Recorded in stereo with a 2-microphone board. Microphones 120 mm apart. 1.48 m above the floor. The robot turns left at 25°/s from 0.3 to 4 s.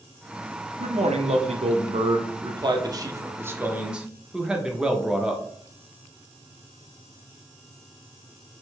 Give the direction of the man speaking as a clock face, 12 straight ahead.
3 o'clock.